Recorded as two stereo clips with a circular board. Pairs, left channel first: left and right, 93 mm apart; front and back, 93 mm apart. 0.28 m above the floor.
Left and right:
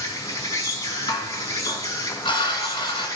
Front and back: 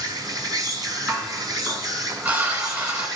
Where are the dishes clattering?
115° left, 1.4 m.